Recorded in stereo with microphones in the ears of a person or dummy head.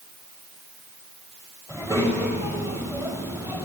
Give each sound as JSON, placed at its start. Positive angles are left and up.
{"t": 1.7, "sound": "a child speaking", "side_deg": -20, "distance_m": 5.5}